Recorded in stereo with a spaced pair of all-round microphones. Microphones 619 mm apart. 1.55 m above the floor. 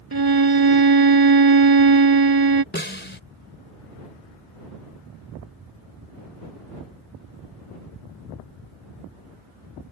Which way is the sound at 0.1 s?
40° right (ahead or behind).